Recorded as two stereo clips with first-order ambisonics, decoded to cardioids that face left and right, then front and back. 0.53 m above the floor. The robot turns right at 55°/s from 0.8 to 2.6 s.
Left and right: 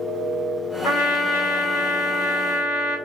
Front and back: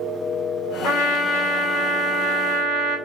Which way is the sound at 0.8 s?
40° left.